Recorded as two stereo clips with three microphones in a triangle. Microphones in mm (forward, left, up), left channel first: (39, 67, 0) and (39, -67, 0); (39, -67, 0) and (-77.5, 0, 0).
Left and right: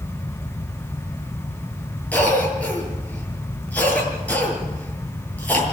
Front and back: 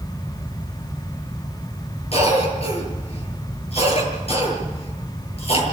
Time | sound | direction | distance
2.1 | a cough | 10° left | 7.5 m